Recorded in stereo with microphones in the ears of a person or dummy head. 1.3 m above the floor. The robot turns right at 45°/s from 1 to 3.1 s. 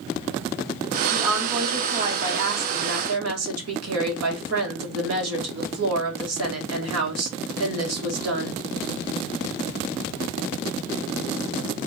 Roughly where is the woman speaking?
Behind.